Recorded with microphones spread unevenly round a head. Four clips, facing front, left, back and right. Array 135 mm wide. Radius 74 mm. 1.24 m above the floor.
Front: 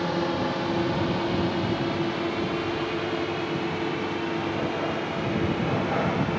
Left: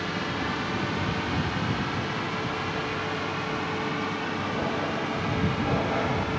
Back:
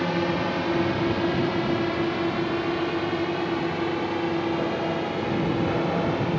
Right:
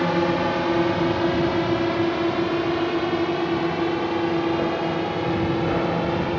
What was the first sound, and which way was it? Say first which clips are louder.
A drone: right 10 dB, back 1 dB; 80° right.